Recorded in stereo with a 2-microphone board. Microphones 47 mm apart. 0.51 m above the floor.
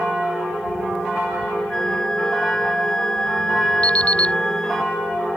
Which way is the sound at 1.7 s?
15° left (ahead or behind).